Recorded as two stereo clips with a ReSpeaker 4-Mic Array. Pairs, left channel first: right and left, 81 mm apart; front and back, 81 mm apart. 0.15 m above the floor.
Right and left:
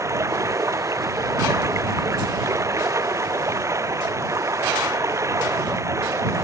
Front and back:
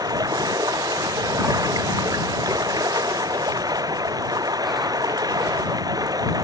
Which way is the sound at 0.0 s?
145° left.